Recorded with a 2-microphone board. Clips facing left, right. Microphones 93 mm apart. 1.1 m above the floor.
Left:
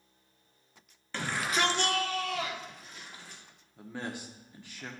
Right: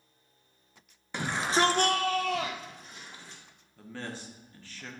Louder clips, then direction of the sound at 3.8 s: Left 1 dB; 15° left (ahead or behind).